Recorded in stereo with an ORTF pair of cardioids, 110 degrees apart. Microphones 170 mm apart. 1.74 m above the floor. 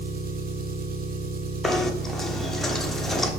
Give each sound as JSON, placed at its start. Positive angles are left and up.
{"t": 0.0, "sound": "an engine running", "azimuth_deg": -60, "distance_m": 1.3}
{"t": 1.6, "sound": "knocking", "azimuth_deg": 0, "distance_m": 1.2}